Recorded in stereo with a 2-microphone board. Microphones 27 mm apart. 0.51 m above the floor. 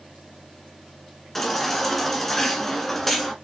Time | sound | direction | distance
1.4 | a baby crying | 10° left (ahead or behind) | 1.8 m